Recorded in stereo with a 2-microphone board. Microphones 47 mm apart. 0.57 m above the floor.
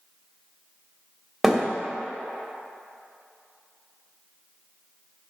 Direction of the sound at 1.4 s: 5° right (ahead or behind).